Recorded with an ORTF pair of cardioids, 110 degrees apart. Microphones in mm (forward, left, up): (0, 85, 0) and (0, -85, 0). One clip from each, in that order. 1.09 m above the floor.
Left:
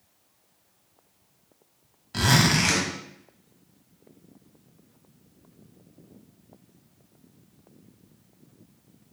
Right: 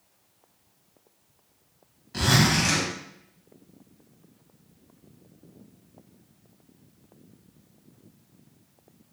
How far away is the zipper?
About 1.0 m.